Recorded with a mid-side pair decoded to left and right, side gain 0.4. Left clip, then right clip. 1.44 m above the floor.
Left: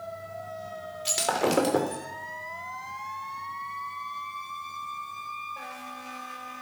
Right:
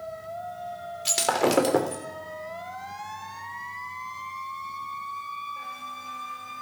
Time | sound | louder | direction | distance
1.1 | breaking glass | right 2 dB | 20° right | 3 m